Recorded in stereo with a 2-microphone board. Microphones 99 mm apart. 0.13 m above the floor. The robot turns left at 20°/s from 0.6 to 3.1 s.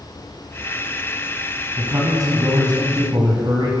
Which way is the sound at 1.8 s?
30° right (ahead or behind).